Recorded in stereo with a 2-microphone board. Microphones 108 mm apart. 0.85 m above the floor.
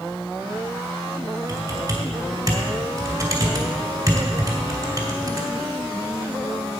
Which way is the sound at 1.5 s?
35° right (ahead or behind).